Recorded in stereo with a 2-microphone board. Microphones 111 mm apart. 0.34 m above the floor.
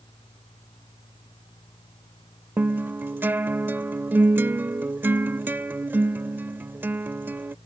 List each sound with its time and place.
2.6 s a guitar: 20° right (ahead or behind)